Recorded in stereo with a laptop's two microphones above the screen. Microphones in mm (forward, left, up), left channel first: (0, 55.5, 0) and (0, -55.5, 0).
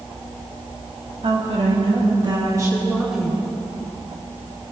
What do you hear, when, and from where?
1.2 s a woman speaking: 65° right (ahead or behind), 2.5 m; by 3.5 s 20° left (ahead or behind), 1.4 m